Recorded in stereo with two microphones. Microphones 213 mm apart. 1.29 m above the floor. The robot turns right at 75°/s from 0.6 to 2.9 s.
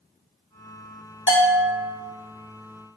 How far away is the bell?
About 0.7 m.